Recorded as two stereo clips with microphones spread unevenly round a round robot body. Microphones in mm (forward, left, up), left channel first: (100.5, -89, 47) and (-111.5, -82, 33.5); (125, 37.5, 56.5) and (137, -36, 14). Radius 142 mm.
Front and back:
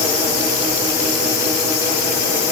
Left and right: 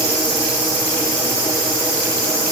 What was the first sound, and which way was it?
Only background noise.